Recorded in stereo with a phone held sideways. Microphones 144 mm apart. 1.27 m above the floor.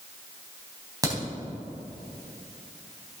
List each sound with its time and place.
1.0 s a crack: 25° right (ahead or behind), 4 m